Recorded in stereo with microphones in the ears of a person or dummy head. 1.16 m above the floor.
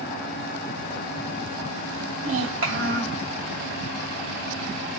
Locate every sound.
2.2 s a child speaking: 85° right, 1.9 m